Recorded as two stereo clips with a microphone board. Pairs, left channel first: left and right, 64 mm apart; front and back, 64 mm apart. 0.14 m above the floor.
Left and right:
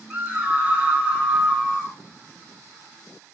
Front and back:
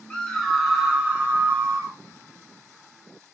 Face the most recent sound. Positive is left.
turn(degrees=180)